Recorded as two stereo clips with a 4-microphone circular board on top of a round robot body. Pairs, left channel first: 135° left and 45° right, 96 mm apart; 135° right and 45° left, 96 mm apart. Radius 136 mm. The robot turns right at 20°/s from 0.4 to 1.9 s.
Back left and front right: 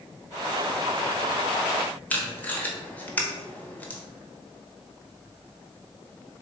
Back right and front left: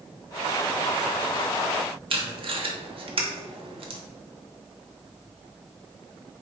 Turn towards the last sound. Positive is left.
turn(degrees=60)